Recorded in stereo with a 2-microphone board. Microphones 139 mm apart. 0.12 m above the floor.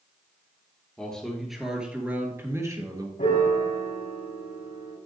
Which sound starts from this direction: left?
A piano, at 3.2 s.